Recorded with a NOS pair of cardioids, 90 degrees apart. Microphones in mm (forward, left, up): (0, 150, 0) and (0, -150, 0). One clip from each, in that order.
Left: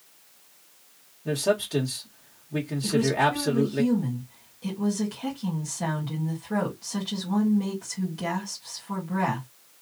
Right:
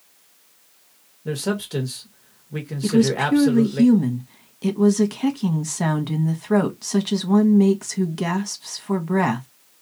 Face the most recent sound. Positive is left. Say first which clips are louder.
# right 3 dB
turn(degrees=-70)